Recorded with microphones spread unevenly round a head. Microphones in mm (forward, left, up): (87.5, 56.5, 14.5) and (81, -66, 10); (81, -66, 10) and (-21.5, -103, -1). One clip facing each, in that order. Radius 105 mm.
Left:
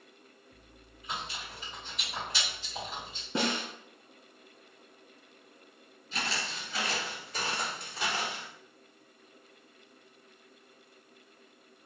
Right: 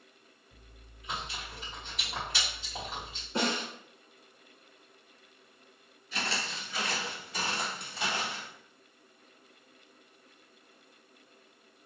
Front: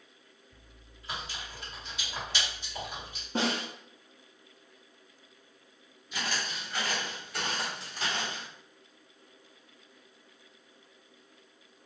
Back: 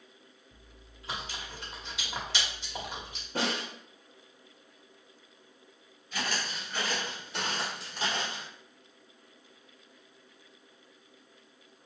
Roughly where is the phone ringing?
I don't hear a phone ringing.